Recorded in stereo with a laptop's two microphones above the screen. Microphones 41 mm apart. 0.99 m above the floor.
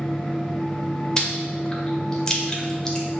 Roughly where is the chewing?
Left.